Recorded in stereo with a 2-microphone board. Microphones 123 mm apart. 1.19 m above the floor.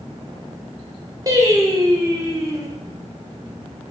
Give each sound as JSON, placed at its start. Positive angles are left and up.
{"t": 1.3, "sound": "singing", "side_deg": -30, "distance_m": 1.0}